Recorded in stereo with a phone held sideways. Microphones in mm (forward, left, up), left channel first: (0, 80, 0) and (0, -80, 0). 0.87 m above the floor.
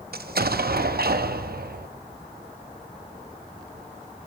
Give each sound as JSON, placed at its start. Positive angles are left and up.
{"t": 0.1, "sound": "an explosion", "side_deg": -75, "distance_m": 0.6}